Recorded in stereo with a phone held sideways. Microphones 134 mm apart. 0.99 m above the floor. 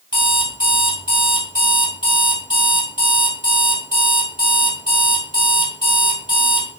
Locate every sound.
0.1 s an alarm clock: 35° left (ahead or behind), 1.0 m